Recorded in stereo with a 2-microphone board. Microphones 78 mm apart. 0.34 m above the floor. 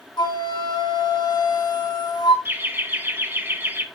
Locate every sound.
0.2 s a flute: 65° left (ahead or behind), 1.6 m
2.5 s laughter: 25° right (ahead or behind), 1.1 m